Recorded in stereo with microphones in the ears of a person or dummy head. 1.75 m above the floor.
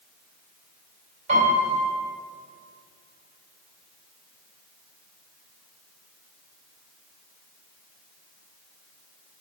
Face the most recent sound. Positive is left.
turn(degrees=-40)  # may be behind; listen again after turning